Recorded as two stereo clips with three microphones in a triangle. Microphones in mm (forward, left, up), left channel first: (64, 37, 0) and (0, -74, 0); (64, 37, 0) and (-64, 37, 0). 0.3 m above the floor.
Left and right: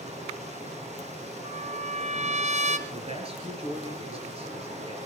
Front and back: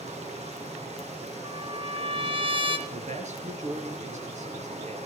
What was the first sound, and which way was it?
Running water, 150° right.